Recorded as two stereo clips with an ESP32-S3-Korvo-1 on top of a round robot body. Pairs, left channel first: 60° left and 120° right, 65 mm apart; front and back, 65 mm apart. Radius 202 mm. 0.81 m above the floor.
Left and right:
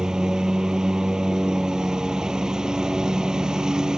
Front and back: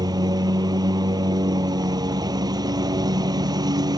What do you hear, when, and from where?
0.0 s a lawn mower: 160° left